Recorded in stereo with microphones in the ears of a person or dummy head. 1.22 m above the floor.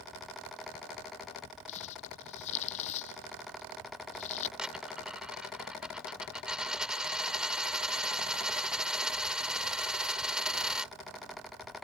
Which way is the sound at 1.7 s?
40° left (ahead or behind).